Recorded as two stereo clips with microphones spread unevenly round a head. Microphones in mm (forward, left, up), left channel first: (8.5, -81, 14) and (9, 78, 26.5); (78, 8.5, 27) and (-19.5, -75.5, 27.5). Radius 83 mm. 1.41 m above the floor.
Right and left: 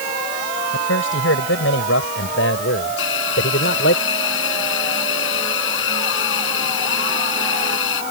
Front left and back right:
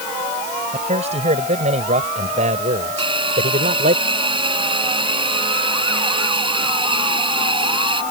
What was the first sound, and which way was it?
A man speaking, 105° right.